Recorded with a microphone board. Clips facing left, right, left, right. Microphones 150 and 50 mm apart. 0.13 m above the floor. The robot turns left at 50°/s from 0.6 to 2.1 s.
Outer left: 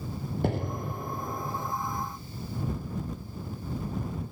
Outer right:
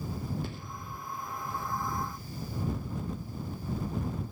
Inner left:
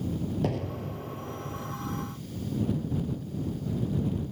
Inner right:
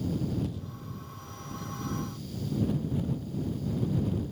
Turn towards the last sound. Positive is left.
turn(degrees=10)